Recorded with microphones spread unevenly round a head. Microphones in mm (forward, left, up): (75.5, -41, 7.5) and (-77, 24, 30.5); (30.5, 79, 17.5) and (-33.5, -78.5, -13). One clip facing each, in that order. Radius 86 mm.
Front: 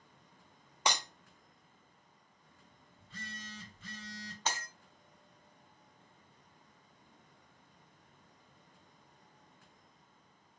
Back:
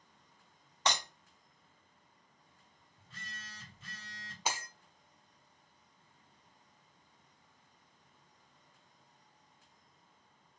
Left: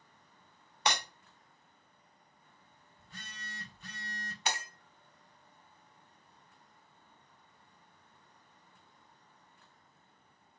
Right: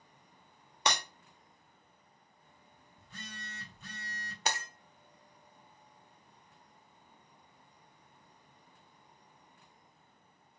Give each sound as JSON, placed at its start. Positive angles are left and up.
{"t": 0.9, "sound": "breaking glass", "azimuth_deg": -105, "distance_m": 1.3}
{"t": 3.0, "sound": "a phone buzzing", "azimuth_deg": -120, "distance_m": 3.0}
{"t": 4.5, "sound": "breaking glass", "azimuth_deg": -145, "distance_m": 0.9}